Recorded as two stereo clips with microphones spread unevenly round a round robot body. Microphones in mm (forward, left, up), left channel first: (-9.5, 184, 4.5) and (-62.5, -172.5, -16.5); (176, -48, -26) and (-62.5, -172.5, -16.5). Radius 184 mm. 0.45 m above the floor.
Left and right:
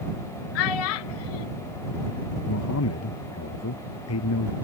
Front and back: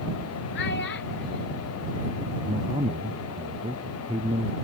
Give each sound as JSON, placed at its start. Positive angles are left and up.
{"t": 0.6, "sound": "a child speaking", "azimuth_deg": 90}
{"t": 2.5, "sound": "a man speaking", "azimuth_deg": 130}